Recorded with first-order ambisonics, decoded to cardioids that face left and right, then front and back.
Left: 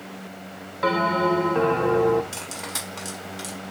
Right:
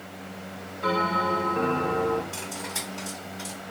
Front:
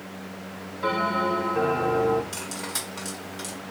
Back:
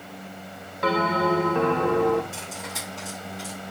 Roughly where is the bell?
Behind left.